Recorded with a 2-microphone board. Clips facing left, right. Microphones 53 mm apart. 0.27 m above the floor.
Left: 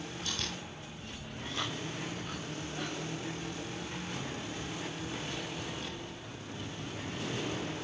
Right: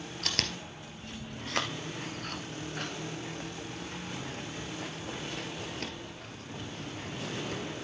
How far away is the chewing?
About 1.6 m.